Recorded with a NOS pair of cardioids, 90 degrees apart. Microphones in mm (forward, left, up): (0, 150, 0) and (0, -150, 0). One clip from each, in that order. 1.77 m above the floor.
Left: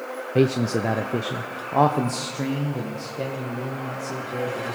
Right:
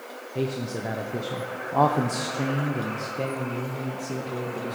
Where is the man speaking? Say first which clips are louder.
Left 8 dB; 60° left, 0.9 m; by 4.8 s 10° right, 3 m.